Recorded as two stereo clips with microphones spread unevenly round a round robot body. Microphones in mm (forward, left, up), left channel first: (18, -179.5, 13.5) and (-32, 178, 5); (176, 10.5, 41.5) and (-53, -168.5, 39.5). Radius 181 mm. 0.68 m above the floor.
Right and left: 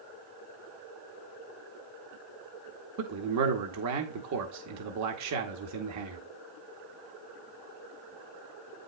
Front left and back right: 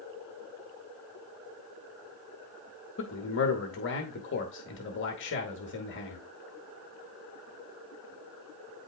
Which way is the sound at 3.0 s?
75° left.